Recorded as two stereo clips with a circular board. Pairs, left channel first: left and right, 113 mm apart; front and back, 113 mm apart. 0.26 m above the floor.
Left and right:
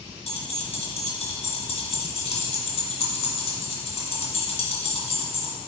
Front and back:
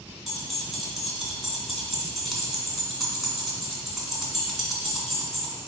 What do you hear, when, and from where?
0.3 s keys jangling: 90° left, 1.8 m